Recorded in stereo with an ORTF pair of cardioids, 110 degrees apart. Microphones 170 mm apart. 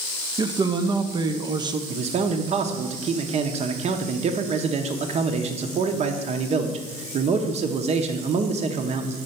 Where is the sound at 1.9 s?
40° right, 0.7 m.